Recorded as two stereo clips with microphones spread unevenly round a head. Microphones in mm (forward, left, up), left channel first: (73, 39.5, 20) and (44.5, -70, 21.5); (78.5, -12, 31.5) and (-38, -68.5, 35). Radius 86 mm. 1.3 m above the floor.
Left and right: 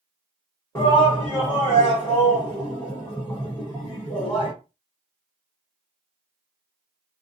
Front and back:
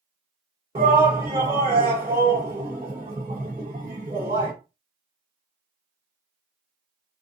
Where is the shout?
150° left, 1.2 m.